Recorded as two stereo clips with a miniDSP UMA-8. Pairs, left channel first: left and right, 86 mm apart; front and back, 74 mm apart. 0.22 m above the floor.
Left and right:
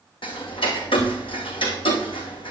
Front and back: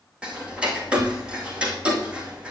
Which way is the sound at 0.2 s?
105° left.